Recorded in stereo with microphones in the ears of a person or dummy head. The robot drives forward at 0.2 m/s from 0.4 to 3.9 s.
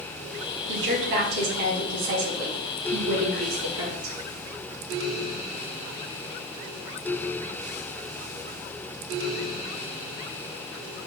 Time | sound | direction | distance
0.7 | a woman speaking | 60° right (ahead or behind) | 2.5 m